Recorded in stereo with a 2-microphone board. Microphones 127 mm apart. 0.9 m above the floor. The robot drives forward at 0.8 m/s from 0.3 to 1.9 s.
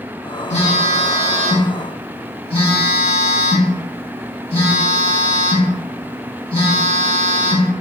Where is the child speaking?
I don't hear a child speaking.